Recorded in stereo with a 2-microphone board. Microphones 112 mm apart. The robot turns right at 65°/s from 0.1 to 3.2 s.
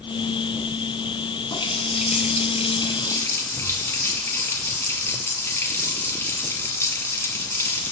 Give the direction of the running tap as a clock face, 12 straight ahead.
10 o'clock.